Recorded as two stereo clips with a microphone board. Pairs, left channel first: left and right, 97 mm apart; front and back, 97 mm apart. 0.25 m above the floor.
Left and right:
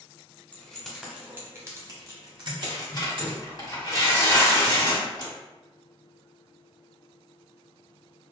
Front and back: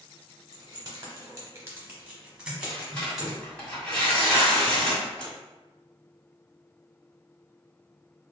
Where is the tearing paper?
75° left, 1.8 m.